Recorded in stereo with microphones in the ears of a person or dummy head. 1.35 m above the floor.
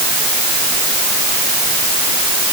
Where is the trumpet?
No trumpet in this recording.